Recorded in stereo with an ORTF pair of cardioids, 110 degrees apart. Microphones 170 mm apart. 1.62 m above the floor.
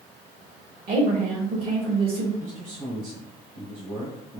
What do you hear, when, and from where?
0.9 s a woman speaking: 60° right, 2.5 m
2.4 s a man speaking: 50° right, 2 m